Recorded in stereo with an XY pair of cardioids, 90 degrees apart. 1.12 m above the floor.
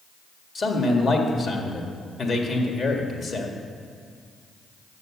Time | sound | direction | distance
0.6 | a man speaking | 50° left | 1.6 m